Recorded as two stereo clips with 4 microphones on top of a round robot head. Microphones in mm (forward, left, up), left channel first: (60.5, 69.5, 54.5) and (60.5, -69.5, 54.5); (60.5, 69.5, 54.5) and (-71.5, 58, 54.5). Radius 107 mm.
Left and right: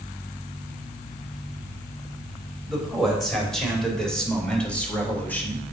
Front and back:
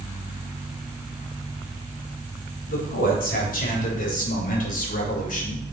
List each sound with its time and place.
2.7 s a man speaking: straight ahead, 4 m; by 5.6 s 15° left, 2 m